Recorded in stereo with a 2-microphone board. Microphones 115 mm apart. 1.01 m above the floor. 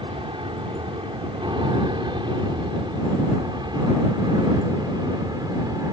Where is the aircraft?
50° right (ahead or behind); by 5.9 s 35° right (ahead or behind).